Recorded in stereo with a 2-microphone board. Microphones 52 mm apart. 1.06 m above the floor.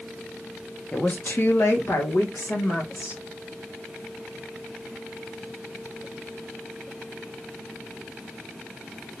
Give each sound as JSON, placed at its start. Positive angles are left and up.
{"t": 0.9, "sound": "a woman speaking", "side_deg": 20, "distance_m": 0.8}